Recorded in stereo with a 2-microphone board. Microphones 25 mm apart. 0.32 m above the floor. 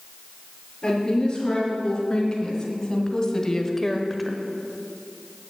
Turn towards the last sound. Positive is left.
turn(degrees=-10)  # may be behind; listen again after turning